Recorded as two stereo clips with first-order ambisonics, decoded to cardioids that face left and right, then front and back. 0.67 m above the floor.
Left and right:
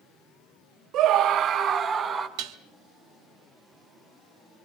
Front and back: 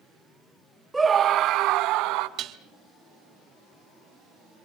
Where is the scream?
95° right, 0.7 m; by 2.3 s 155° right, 2 m.